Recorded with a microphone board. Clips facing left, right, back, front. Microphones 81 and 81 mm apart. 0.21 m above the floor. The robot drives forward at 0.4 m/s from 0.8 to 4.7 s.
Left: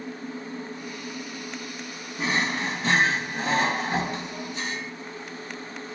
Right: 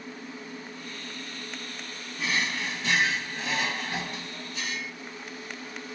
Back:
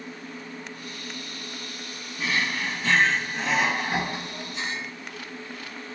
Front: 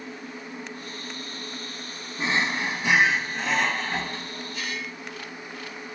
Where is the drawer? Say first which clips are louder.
Left 4 dB, front 2 dB; 50° left; by 4.9 s 130° left.